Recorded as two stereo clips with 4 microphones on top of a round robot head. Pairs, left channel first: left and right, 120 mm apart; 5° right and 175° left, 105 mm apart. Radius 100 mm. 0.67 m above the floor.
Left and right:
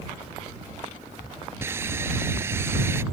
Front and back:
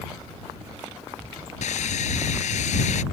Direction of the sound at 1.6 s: 15° right.